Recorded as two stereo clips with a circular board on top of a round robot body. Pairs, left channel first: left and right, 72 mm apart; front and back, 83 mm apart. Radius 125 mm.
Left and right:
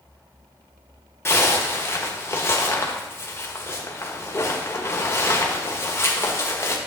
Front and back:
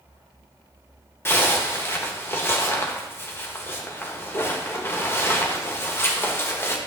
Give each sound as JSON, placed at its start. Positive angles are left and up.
{"t": 1.2, "sound": "a zipper", "azimuth_deg": 50, "distance_m": 1.7}